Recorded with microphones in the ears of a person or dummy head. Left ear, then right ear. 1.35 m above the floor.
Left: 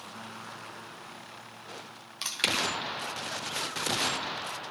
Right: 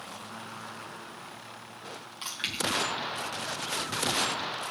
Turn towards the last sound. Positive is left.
turn(degrees=25)  # may be behind; listen again after turning